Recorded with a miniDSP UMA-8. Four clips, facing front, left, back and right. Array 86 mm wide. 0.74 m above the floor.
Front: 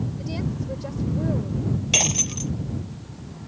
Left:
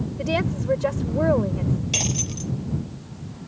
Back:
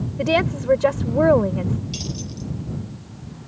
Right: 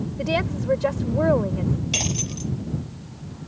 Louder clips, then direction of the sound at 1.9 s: Even, front 3 dB; straight ahead.